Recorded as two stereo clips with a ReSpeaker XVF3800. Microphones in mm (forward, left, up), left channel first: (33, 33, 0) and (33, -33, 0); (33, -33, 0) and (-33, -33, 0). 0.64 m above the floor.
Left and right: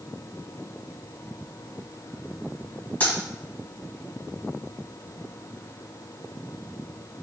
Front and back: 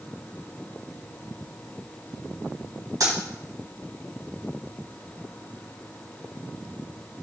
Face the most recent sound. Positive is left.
turn(degrees=155)